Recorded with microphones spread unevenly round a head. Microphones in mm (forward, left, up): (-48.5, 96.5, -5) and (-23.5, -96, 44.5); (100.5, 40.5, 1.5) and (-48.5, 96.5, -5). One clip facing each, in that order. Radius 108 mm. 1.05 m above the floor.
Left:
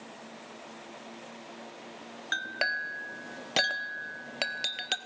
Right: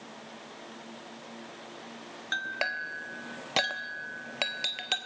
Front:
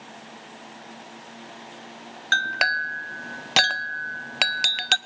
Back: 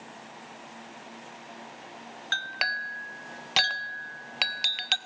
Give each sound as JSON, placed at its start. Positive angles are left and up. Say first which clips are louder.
{"t": 2.3, "sound": "a clink", "louder": "even, front 9 dB", "azimuth_deg": 10, "distance_m": 0.8}